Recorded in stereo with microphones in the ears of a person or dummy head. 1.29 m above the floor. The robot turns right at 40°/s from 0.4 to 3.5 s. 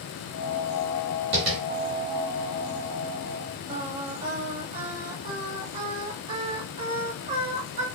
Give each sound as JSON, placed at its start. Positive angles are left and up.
{"t": 1.3, "sound": "tapping", "side_deg": -30, "distance_m": 1.2}
{"t": 3.7, "sound": "singing", "side_deg": -35, "distance_m": 1.1}